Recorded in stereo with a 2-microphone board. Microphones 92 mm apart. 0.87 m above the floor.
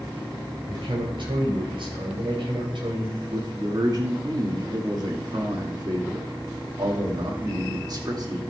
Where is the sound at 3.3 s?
45° right (ahead or behind), 2.0 m.